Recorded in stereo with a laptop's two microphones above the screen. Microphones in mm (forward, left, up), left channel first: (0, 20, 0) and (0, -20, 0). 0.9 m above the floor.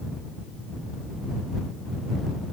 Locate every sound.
Only background noise.